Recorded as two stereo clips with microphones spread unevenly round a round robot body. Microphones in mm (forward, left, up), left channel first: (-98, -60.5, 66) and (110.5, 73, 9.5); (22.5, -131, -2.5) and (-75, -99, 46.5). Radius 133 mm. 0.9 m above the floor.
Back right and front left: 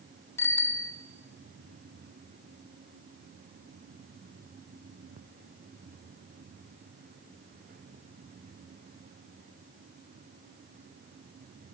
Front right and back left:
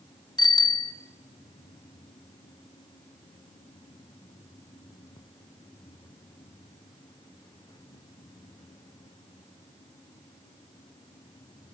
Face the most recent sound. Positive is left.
turn(degrees=-65)